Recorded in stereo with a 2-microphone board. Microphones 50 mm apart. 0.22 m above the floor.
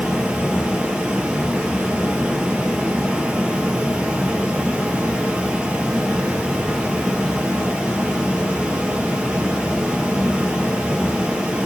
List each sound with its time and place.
0.0 s running water: 20° right (ahead or behind), 0.9 m